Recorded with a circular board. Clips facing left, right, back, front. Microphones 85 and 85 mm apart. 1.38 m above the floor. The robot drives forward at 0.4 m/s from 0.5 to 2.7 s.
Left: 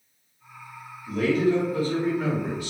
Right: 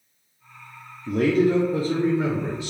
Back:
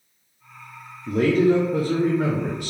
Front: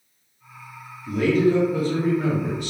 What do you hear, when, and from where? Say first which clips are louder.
1.1 s a man speaking: right 3 dB, back 1 dB; 130° right, 0.6 m; by 2.7 s 155° right, 1.2 m